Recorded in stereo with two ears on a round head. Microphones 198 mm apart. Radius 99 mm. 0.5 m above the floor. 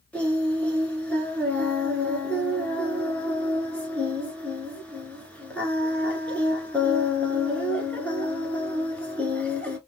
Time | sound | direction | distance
0.1 | singing | 5° left (ahead or behind) | 1.0 m